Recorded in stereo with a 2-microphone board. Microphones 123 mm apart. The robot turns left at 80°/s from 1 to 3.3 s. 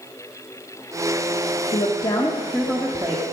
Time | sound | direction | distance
1.7 | a woman speaking | 80° left | 1.4 m